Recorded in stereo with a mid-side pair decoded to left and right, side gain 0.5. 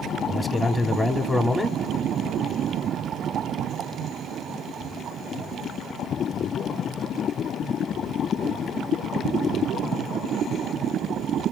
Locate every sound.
0.3 s a man speaking: 15° left, 0.7 m